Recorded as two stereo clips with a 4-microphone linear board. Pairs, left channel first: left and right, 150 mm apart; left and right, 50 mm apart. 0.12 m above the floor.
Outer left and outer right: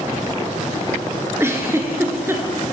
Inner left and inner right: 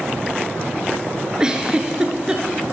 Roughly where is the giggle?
Centre.